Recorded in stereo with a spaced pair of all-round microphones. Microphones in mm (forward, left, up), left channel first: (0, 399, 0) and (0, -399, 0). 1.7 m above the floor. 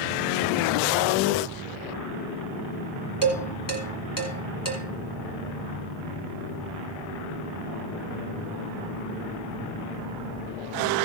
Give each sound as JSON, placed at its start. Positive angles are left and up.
{"t": 3.2, "sound": "dishes clattering", "side_deg": 30, "distance_m": 2.0}